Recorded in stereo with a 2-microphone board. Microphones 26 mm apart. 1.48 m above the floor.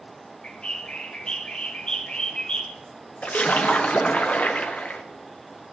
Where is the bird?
40° left (ahead or behind), 1.0 m.